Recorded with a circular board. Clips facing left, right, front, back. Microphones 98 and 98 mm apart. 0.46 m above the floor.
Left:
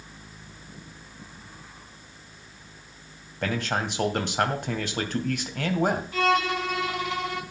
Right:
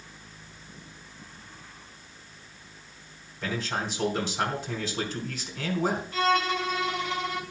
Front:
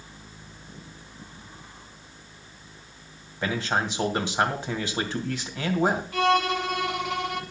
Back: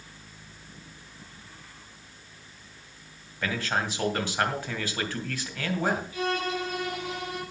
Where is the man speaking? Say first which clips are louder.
Left 3 dB, front 3 dB; 70° left, 2.5 m.